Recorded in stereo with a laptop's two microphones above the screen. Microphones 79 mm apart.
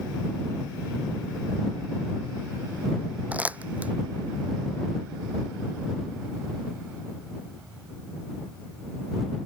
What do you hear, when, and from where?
3.3 s crumpling: 20° right (ahead or behind)